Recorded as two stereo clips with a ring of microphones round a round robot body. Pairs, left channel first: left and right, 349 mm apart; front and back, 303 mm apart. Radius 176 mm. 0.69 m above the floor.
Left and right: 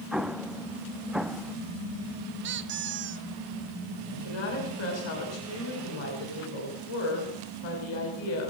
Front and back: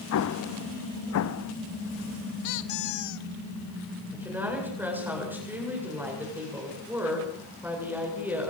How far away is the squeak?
About 0.9 m.